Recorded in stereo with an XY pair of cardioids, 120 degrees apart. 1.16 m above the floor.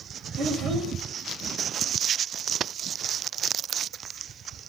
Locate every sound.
0.4 s a child speaking: 45° right, 3.5 m